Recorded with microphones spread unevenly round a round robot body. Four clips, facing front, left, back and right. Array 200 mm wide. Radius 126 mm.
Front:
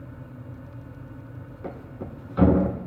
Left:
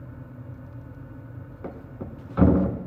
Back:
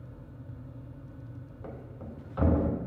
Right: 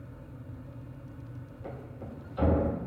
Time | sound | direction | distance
1.6 | a thud | 60° left | 1.2 m